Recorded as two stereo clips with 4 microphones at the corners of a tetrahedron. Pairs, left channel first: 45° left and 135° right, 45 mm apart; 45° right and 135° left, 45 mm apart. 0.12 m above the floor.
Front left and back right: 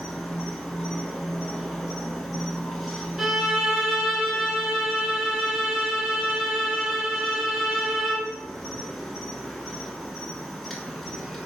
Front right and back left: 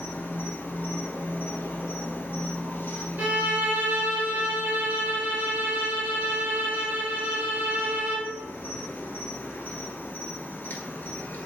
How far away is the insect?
About 0.7 m.